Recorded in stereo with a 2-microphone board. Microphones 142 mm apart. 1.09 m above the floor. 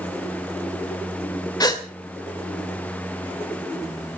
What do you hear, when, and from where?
1.6 s a gasp: 30° left (ahead or behind), 2 m